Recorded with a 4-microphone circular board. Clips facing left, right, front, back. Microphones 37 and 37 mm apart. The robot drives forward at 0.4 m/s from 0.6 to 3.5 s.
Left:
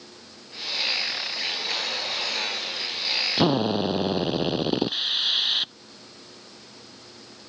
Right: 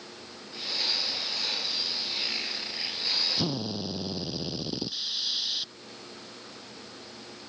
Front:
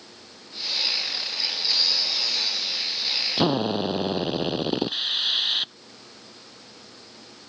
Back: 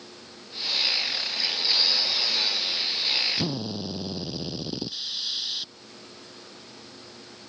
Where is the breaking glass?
No breaking glass in this recording.